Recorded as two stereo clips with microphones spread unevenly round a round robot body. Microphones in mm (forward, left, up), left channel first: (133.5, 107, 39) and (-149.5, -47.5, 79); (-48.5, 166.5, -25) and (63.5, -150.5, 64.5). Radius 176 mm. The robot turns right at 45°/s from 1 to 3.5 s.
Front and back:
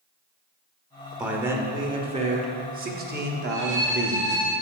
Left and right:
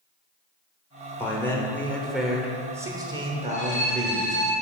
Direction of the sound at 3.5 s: 170° left.